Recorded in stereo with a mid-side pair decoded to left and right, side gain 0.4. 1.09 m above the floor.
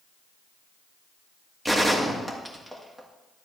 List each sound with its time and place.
1.6 s a gunshot: 15° right, 1.9 m